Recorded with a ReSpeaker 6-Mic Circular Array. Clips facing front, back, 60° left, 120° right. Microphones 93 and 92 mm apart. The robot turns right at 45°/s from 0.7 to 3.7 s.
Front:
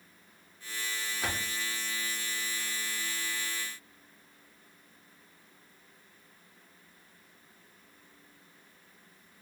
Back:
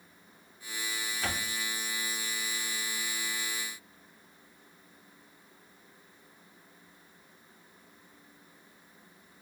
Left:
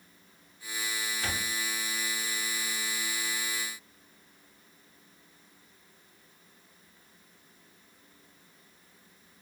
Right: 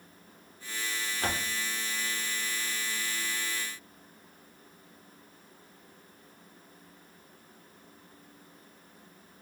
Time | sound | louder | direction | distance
1.2 | a door slam | even, right 5 dB | 75° right | 2 m